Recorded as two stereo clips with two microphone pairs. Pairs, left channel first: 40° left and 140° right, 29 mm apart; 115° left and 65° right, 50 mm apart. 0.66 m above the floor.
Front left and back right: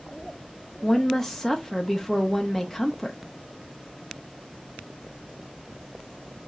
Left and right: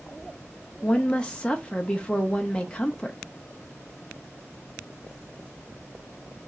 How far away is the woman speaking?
About 0.6 m.